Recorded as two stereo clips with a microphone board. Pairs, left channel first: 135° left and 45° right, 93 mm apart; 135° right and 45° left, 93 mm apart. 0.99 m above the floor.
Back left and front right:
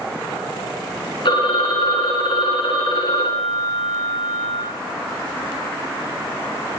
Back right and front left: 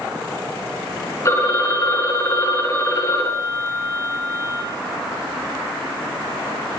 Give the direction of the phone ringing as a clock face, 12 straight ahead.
6 o'clock.